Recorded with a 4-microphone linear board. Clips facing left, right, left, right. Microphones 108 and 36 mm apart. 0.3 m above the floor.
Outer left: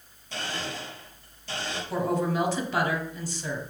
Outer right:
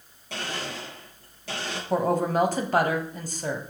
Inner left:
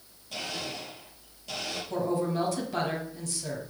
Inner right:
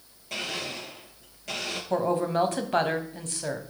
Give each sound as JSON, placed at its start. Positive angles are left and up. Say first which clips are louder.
{"t": 0.3, "sound": "a blender", "louder": "outer right 1 dB, inner right 3 dB", "side_deg": -70, "distance_m": 4.5}
{"t": 1.9, "sound": "a woman speaking", "louder": "outer right 4 dB, inner right 4 dB", "side_deg": -45, "distance_m": 1.5}